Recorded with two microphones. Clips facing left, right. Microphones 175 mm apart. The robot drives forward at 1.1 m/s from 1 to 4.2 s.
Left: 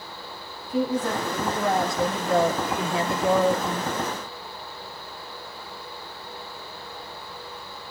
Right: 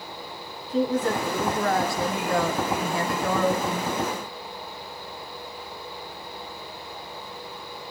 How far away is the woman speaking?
About 2 m.